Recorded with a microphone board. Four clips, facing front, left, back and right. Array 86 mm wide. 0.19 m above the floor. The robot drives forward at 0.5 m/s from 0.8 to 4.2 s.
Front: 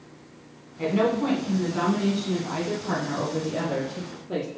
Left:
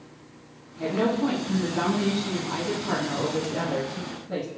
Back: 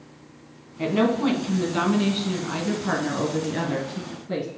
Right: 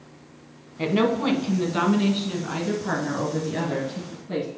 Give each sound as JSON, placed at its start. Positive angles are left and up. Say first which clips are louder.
{"t": 0.8, "sound": "a woman speaking", "louder": "right 2 dB, back 2 dB", "azimuth_deg": -105, "distance_m": 1.2}